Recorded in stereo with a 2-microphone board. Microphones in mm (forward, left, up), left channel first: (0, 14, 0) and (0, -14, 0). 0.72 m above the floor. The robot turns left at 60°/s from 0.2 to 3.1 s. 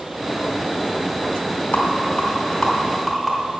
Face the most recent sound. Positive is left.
turn(degrees=-5)  # may be behind; listen again after turning